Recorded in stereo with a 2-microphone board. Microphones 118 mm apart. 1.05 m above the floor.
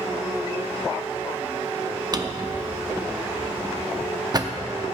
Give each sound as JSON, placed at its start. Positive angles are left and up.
{"t": 2.1, "sound": "a drawer", "side_deg": -35, "distance_m": 0.6}